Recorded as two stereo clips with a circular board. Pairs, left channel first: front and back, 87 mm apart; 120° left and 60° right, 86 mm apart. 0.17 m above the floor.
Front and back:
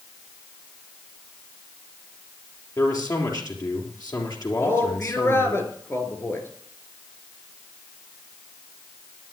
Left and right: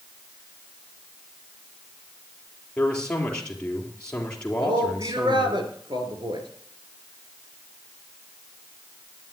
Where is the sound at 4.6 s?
60° right, 3 m.